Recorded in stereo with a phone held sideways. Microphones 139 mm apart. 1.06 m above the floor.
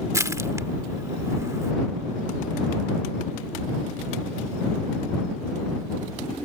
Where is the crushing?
20° right (ahead or behind).